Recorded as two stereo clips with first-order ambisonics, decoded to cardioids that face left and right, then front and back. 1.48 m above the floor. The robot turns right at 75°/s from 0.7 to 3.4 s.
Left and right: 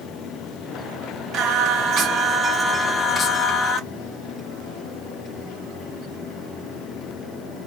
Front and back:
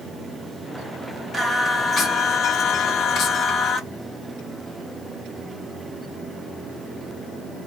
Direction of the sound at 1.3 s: 110° right.